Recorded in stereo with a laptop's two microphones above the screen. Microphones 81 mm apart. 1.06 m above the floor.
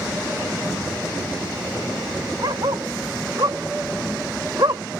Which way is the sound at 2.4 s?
55° right (ahead or behind).